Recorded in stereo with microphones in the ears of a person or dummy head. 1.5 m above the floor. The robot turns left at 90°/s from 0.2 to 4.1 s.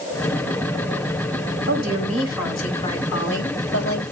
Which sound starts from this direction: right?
A woman speaking, at 1.7 s.